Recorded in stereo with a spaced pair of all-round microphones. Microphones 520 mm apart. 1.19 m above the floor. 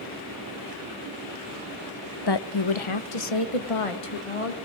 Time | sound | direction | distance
2.3 | a woman speaking | 45° left (ahead or behind) | 0.7 m